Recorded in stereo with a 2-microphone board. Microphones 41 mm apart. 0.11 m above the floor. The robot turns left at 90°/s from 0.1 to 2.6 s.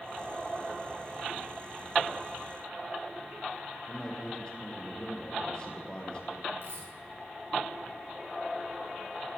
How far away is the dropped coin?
About 7.5 m.